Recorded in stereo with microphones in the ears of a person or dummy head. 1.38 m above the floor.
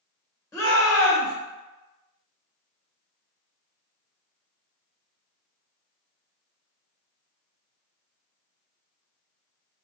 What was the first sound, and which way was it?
A shout, 15° left (ahead or behind).